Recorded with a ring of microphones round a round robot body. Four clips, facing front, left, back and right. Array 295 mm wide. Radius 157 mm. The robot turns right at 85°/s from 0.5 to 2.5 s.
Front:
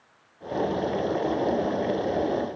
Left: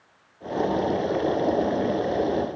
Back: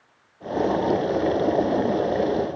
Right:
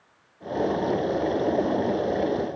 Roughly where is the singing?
No singing in this recording.